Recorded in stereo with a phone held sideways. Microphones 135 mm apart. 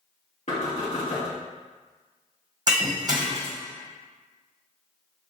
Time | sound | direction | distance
0.5 | knocking | 60° left (ahead or behind) | 2 m
2.7 | breaking glass | 30° right (ahead or behind) | 1.8 m